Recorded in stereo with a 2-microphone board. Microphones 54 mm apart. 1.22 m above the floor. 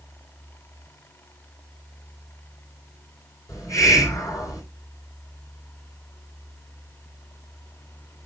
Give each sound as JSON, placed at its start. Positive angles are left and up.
{"t": 3.5, "sound": "a hiss", "side_deg": 85, "distance_m": 4.5}